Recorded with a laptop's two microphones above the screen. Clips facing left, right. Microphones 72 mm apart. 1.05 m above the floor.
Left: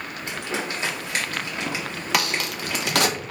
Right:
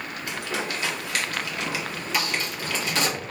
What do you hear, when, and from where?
0.3 s crumpling: 25° left (ahead or behind), 1.0 m
2.1 s a crack: 70° left (ahead or behind), 0.5 m